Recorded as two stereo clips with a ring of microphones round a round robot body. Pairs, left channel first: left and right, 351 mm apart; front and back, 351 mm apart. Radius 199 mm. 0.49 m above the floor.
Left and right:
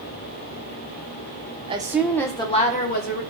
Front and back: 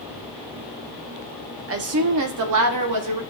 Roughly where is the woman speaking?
Behind right.